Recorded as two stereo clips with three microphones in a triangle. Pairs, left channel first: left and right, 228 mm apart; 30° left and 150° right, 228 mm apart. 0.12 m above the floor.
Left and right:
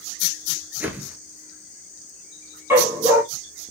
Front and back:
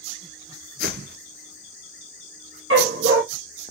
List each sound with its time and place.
0.8 s a whoosh: 170° right, 0.9 m
2.7 s a dog barking: 170° right, 1.4 m